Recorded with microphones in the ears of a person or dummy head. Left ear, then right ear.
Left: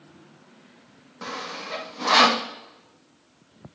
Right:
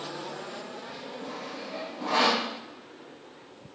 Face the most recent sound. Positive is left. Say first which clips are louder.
# left 9 dB
turn(degrees=60)  # may be behind; listen again after turning